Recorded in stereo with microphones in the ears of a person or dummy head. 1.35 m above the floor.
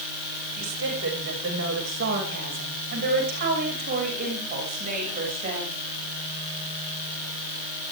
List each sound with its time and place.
0.5 s a woman speaking: 70° right (ahead or behind), 7 m; by 5.8 s 40° right (ahead or behind), 8 m